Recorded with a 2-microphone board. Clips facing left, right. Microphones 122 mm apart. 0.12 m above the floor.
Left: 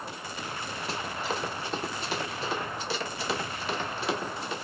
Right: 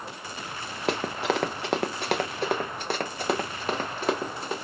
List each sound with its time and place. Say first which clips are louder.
0.9 s running footsteps: right 8 dB; 75° right (ahead or behind), 0.7 m; by 4.5 s 45° right (ahead or behind), 2 m